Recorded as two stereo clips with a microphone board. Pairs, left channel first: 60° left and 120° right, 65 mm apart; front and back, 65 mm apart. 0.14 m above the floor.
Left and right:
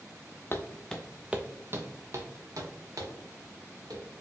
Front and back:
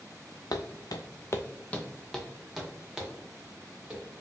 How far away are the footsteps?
About 0.6 m.